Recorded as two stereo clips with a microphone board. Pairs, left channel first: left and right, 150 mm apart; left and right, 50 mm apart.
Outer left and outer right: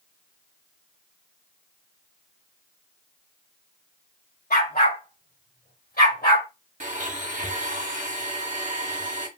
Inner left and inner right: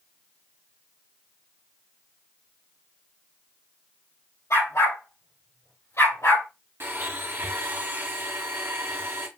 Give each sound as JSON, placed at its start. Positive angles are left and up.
{"t": 4.5, "sound": "a dog barking", "side_deg": 85, "distance_m": 4.5}
{"t": 6.8, "sound": "a blender", "side_deg": -55, "distance_m": 1.5}